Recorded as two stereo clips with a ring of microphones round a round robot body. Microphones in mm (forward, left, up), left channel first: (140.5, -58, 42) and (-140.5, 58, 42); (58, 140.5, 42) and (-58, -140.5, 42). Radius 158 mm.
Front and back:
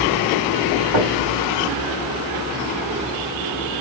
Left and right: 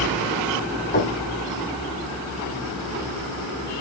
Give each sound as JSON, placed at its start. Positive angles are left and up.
{"t": 0.9, "sound": "knocking", "azimuth_deg": 130, "distance_m": 3.0}